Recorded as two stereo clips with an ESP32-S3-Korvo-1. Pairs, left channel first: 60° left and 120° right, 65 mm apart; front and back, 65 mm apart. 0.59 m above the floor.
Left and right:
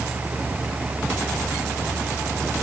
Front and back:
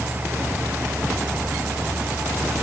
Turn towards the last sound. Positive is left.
No sound to turn to.